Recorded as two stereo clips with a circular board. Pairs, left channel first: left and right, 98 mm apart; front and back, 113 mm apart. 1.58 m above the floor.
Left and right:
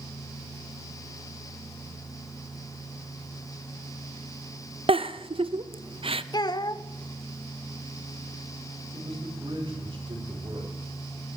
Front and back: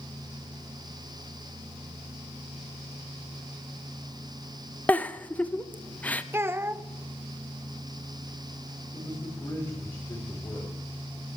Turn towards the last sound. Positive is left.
turn(degrees=-55)